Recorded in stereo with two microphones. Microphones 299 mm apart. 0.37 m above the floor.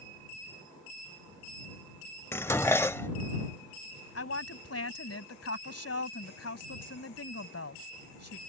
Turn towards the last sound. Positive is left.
turn(degrees=50)  # may be behind; listen again after turning